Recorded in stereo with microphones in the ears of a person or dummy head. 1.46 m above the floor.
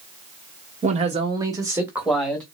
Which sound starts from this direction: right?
A man speaking, at 0.8 s.